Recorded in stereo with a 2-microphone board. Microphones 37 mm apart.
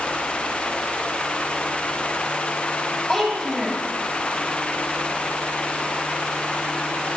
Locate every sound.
3.1 s a child speaking: 15° left (ahead or behind), 9.5 m